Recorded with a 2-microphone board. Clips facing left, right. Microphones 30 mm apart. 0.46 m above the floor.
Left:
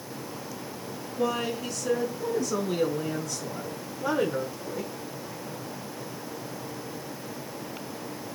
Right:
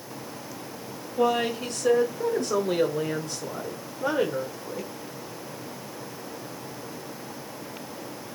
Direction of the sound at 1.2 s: 60° right (ahead or behind).